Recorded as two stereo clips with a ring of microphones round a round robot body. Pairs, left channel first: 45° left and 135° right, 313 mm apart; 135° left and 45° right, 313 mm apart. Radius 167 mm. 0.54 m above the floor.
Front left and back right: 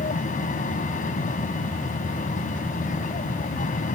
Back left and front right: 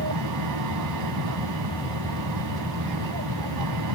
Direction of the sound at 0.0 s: 20° right.